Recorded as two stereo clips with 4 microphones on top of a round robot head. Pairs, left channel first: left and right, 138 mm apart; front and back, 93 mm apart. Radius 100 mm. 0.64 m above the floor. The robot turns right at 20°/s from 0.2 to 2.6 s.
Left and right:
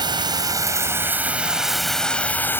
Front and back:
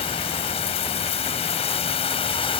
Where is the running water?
30° right; by 2.6 s 15° left.